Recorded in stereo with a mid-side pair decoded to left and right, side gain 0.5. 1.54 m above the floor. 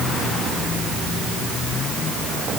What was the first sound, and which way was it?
Only background noise.